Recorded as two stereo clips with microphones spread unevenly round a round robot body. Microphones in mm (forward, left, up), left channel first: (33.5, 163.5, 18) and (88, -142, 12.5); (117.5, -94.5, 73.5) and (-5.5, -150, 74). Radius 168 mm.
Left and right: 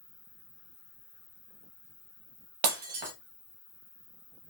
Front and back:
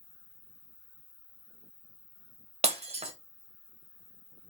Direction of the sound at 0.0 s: 5° left.